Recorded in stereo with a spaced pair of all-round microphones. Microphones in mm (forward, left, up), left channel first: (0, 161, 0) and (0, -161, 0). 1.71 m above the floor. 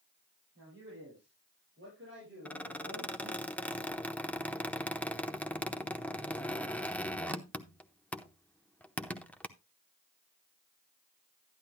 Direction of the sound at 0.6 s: 40° right (ahead or behind).